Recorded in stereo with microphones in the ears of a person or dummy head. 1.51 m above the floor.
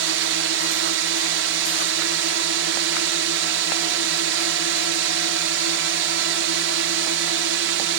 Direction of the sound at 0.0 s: 60° right (ahead or behind).